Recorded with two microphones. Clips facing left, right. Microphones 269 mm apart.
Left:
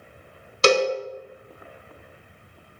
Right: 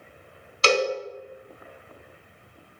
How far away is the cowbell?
About 0.5 m.